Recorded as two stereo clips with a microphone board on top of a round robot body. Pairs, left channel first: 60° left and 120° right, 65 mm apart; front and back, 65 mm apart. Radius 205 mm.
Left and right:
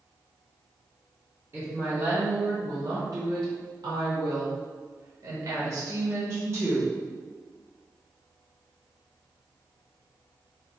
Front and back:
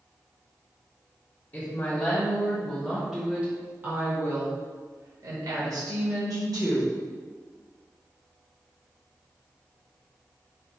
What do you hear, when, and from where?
1.5 s a woman speaking: 60° right, 1.5 m; by 6.9 s 175° right, 2 m